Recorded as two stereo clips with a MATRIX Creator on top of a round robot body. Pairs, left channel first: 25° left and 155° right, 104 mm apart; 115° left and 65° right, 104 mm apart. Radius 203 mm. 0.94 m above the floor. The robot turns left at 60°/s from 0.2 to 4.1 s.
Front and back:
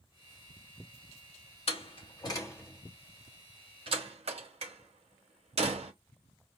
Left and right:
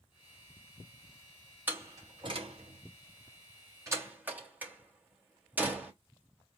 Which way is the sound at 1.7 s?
5° left.